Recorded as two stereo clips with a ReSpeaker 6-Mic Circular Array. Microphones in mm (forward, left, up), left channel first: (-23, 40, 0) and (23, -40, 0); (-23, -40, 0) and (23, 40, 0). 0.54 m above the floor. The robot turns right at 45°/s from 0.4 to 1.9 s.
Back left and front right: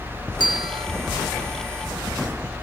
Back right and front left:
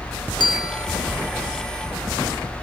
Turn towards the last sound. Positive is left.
turn(degrees=-20)